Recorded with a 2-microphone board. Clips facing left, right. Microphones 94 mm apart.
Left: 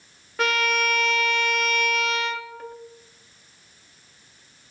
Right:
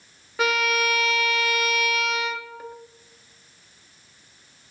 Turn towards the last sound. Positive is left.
turn(degrees=-5)  # may be behind; listen again after turning